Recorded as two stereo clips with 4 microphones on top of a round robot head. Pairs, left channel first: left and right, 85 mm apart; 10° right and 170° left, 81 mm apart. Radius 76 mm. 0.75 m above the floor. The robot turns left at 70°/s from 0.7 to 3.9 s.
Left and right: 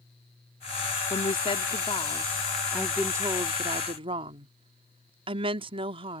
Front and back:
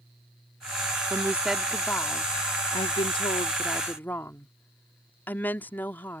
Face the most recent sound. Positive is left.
turn(degrees=-80)